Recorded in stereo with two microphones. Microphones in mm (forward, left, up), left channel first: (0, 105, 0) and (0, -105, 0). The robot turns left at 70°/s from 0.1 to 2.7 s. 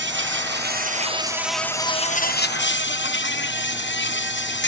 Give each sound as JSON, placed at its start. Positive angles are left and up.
{"t": 0.0, "sound": "an insect", "azimuth_deg": -80}